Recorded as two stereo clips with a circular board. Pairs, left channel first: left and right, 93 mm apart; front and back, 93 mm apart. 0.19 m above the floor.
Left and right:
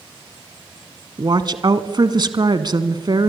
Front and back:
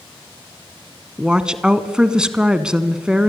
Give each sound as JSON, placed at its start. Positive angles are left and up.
{"t": 1.2, "sound": "a woman speaking", "azimuth_deg": -100, "distance_m": 1.4}